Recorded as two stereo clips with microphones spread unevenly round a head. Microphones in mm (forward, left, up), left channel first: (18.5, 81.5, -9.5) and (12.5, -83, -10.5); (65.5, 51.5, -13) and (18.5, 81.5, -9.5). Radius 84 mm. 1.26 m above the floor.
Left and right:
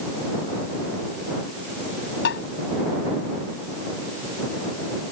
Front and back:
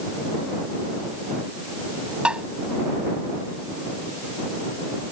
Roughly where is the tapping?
Left.